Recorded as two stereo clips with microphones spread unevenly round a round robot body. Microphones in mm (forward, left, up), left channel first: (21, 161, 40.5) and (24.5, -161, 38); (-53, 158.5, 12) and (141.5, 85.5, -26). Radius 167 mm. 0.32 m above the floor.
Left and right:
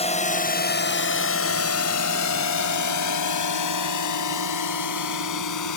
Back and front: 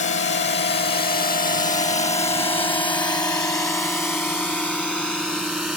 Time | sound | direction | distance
0.0 | a drone | 155° left | ?